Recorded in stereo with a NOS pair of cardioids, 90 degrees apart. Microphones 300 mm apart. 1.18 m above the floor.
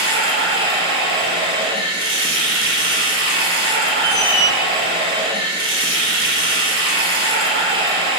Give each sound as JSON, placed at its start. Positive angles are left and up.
{"t": 0.0, "sound": "running water", "azimuth_deg": -15, "distance_m": 0.9}
{"t": 4.0, "sound": "a squeak", "azimuth_deg": -5, "distance_m": 1.3}